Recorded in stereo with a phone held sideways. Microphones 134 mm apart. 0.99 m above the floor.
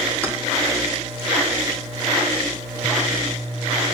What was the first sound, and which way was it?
Keys jangling, 15° right (ahead or behind).